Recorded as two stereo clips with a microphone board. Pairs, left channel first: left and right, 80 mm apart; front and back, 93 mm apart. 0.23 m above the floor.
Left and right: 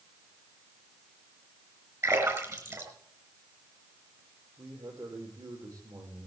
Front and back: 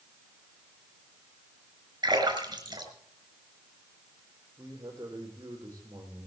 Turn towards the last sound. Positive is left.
turn(degrees=-125)